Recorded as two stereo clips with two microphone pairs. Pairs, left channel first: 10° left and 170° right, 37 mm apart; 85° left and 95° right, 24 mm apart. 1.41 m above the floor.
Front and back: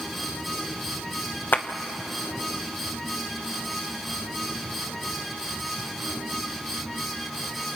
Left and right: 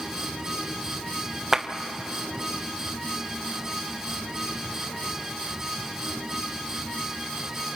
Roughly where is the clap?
Ahead.